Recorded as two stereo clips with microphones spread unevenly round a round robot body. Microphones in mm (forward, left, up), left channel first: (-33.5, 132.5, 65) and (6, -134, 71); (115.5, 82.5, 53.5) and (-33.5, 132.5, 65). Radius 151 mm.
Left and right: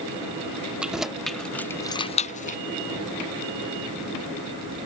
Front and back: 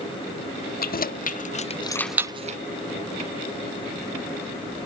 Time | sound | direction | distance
0.8 | keys jangling | 5° left | ?